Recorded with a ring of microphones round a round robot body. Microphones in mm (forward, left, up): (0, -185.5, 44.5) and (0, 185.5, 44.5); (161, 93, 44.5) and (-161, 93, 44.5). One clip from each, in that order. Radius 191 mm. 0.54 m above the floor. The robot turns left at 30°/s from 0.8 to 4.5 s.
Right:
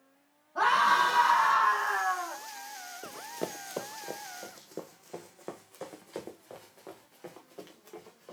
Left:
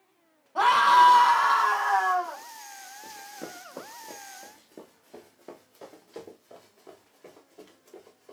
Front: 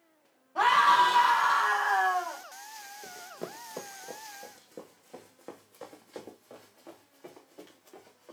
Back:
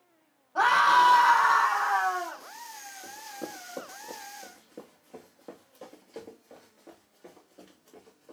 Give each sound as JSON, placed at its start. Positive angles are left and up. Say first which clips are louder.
{"t": 0.6, "sound": "a scream", "louder": "left 6 dB, back 1 dB", "azimuth_deg": 105, "distance_m": 4.5}
{"t": 3.0, "sound": "running footsteps", "louder": "right 5 dB, back 2 dB", "azimuth_deg": -65, "distance_m": 0.7}